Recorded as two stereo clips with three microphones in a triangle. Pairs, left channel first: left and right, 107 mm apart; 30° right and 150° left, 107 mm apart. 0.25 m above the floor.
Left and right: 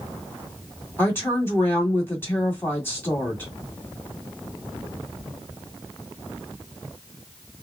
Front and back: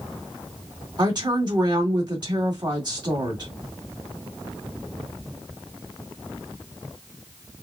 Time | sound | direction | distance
1.0 | a woman speaking | 150° left | 1.9 m